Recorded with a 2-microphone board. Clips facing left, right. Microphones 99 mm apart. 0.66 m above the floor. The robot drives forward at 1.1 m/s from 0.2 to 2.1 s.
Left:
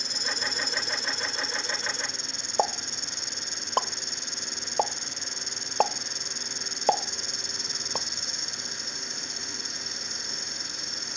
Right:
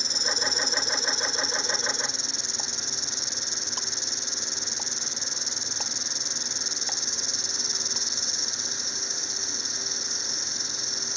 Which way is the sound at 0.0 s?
55° left (ahead or behind).